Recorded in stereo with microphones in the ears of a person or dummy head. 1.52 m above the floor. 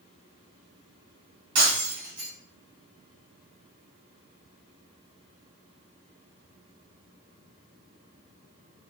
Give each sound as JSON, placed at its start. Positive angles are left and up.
{"t": 1.6, "sound": "breaking glass", "side_deg": -30, "distance_m": 1.2}